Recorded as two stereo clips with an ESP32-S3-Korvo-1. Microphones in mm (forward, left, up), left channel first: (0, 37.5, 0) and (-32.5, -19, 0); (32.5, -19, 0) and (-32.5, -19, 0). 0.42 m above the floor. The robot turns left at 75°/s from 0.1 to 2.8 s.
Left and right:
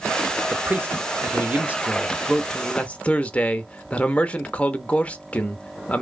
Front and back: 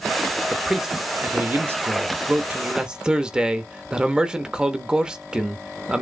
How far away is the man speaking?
About 0.8 m.